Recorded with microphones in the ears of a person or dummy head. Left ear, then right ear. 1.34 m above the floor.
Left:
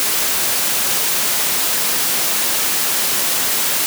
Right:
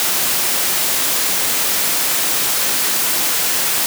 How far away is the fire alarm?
I don't hear a fire alarm.